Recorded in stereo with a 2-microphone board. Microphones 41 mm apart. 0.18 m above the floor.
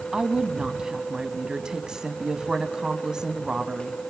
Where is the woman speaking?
15° right (ahead or behind), 1.1 m.